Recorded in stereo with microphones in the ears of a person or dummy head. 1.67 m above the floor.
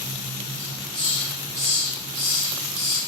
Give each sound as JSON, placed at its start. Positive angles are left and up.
{"t": 0.6, "sound": "a hiss", "side_deg": -35, "distance_m": 3.5}